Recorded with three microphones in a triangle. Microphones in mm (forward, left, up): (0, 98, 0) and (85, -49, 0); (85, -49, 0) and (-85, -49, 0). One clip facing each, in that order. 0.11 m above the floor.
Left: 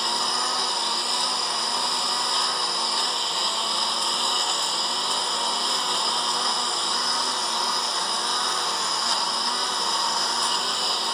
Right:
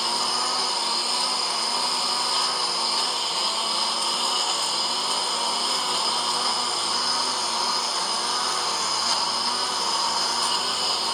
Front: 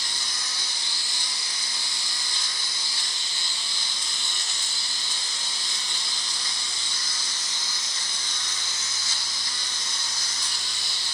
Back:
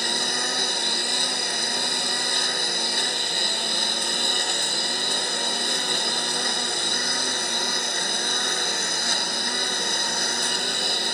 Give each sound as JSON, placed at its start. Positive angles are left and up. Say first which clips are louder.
{"t": 0.0, "sound": "a lawn mower", "louder": "even, back 12 dB", "azimuth_deg": -150}